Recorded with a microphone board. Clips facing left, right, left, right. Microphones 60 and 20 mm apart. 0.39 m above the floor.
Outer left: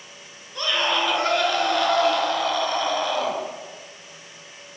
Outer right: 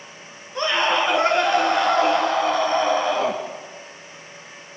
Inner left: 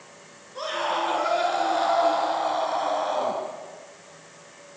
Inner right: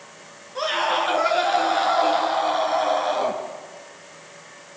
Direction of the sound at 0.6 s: 25° right (ahead or behind).